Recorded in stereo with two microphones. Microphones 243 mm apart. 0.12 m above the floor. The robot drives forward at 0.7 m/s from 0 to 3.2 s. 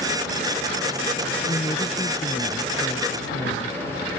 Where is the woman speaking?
20° left (ahead or behind).